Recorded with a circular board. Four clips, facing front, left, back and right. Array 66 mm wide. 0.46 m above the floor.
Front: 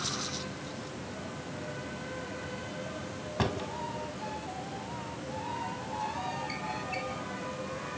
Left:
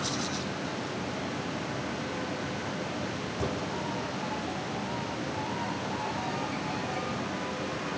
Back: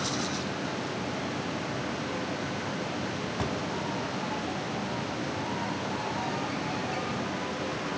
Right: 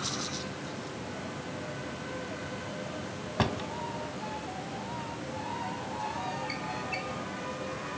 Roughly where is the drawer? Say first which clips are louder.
Right 3 dB, front 2 dB; right.